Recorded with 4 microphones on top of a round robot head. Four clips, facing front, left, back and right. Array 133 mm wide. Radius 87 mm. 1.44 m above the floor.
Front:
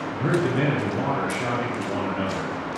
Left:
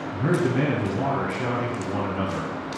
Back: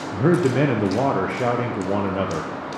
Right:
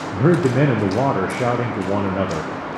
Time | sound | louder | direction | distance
0.1 | a man speaking | right 7 dB, back 5 dB | 120° right | 0.6 m